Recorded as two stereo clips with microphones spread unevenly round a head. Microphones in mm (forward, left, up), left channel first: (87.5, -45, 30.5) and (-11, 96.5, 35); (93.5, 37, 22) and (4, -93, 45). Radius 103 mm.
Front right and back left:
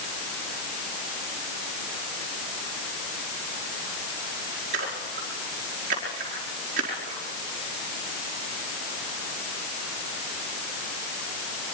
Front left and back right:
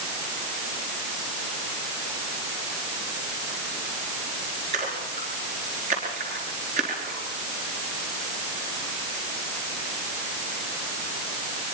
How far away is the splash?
About 5 m.